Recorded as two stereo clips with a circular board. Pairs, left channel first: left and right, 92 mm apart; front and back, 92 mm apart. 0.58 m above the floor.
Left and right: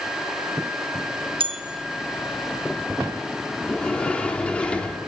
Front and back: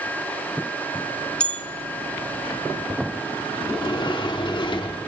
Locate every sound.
1.4 s a bell: 80° right, 0.9 m
3.6 s a sliding door: 15° left, 0.8 m